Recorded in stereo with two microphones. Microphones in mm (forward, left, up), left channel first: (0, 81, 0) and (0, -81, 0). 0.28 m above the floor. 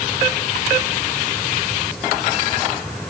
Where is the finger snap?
I don't hear a finger snap.